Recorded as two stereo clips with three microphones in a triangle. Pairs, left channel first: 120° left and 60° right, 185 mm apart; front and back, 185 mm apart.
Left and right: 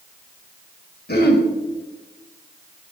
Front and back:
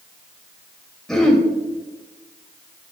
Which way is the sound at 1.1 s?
85° left.